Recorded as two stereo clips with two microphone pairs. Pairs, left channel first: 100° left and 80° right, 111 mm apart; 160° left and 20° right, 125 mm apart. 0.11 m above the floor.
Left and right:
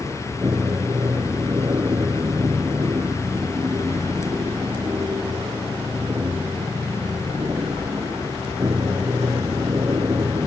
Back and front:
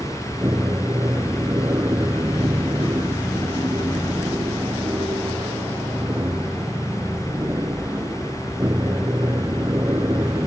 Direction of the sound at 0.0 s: 55° right.